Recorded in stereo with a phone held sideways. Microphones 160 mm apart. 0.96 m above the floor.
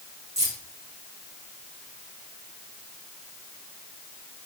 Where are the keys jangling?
45° right (ahead or behind), 3.5 m.